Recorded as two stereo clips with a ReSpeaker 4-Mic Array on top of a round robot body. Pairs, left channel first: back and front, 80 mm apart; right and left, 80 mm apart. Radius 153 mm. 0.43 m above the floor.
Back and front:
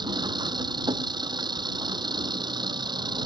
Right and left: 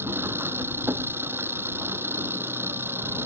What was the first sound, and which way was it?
An engine running, 25° left.